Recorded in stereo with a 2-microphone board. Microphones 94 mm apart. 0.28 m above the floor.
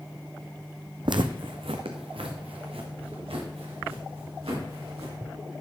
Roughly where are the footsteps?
Right.